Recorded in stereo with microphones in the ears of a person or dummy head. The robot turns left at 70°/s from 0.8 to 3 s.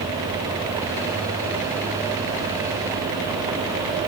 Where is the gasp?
No gasp in this recording.